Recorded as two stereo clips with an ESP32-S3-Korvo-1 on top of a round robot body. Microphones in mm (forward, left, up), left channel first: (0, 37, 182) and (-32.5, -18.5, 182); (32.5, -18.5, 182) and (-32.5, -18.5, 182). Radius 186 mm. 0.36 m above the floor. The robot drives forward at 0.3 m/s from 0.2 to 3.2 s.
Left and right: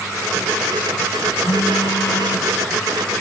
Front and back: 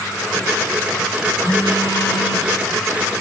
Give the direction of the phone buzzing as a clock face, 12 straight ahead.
11 o'clock.